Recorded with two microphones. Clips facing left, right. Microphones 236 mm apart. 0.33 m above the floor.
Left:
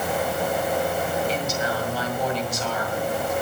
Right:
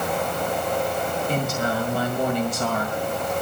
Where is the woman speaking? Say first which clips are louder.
Right 1 dB; 55° right (ahead or behind), 2 m.